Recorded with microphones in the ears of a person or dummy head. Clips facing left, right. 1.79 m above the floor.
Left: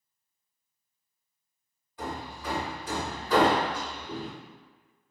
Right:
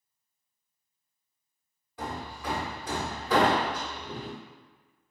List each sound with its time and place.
2.0 s hammering: 60° right (ahead or behind), 0.9 m